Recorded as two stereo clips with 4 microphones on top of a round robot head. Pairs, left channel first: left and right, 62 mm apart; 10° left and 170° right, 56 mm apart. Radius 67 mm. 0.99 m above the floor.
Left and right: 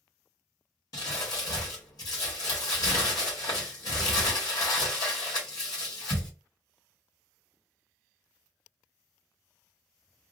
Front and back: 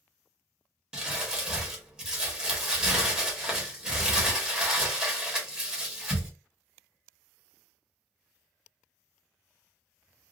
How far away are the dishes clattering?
No dishes clattering in this recording.